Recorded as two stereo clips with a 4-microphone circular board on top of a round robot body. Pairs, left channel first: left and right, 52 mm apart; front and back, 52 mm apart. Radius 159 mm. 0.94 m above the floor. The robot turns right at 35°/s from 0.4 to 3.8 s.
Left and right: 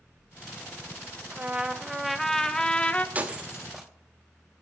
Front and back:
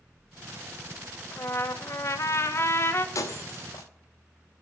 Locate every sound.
1.3 s a trumpet: 30° right, 1.2 m; by 3.0 s 35° left, 1.2 m
3.1 s breaking glass: 25° right, 1.0 m; by 3.9 s 5° right, 1.0 m